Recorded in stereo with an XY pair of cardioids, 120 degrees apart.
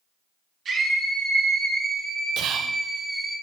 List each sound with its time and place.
0.7 s a scream: 50° right, 2.5 m; by 3.4 s straight ahead, 1.1 m
2.4 s whispering: 60° right, 0.6 m